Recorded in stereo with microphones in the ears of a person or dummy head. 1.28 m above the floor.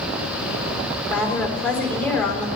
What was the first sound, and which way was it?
A woman speaking, 10° left (ahead or behind).